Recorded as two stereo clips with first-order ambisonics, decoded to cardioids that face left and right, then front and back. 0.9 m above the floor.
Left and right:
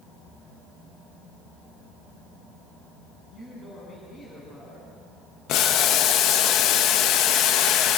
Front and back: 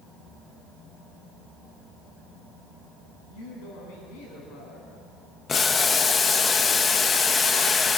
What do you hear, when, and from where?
3.3 s a woman speaking: 20° left, 7 m
5.5 s boiling: 65° left, 0.8 m